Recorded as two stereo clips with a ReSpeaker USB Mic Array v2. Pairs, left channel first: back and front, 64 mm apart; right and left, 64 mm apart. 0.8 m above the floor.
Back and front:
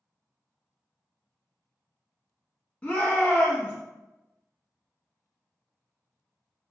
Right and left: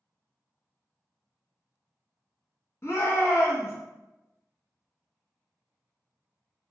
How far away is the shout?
About 1.2 m.